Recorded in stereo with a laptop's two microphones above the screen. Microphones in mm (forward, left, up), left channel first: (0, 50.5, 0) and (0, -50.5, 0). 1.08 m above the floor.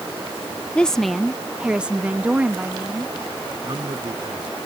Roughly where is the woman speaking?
Centre.